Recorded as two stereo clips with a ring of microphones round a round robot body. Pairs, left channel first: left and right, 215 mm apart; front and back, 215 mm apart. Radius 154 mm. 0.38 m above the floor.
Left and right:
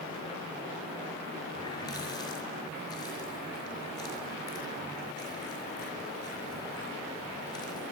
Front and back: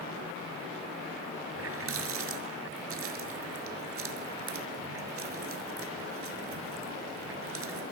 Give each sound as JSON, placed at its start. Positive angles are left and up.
{"t": 1.6, "sound": "a running tap", "azimuth_deg": 170, "distance_m": 5.0}